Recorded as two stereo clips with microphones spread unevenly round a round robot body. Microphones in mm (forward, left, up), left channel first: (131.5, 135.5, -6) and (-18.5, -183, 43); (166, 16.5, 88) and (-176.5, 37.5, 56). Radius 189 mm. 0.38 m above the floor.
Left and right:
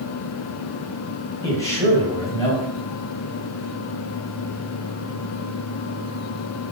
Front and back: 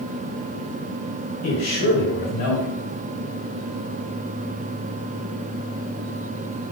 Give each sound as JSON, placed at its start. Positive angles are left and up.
{"t": 1.4, "sound": "a man speaking", "azimuth_deg": -10, "distance_m": 2.0}